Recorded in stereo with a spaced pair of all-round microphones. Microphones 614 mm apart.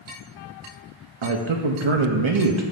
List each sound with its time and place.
1.2 s a man speaking: 50° right (ahead or behind), 0.6 m